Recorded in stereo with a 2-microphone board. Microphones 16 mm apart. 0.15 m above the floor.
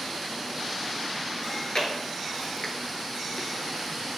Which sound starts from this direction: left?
Chewing, at 1.4 s.